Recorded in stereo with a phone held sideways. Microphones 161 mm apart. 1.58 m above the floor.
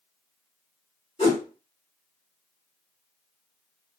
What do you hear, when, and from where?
1.2 s a whoosh: 40° left (ahead or behind), 1.6 m